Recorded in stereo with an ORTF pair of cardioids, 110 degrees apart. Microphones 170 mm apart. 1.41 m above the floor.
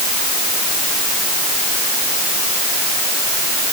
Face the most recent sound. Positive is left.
No sound to turn to.